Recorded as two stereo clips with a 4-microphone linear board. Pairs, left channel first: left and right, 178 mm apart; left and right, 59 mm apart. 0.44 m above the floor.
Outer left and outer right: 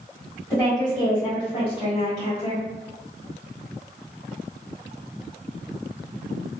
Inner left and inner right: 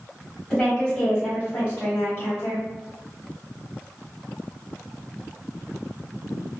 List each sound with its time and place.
0.5 s a woman speaking: 15° left (ahead or behind), 1.6 m; by 2.6 s 50° left (ahead or behind), 2.5 m